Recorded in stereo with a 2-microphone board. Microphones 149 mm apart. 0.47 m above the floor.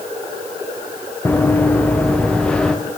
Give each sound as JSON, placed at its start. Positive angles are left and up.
{"t": 1.2, "sound": "running footsteps", "side_deg": 10, "distance_m": 2.5}